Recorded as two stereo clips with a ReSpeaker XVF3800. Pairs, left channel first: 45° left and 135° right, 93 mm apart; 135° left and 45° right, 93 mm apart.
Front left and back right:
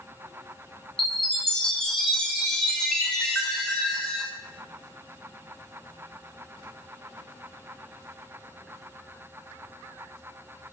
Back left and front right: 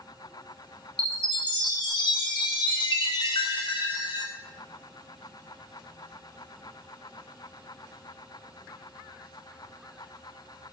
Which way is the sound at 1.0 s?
125° left.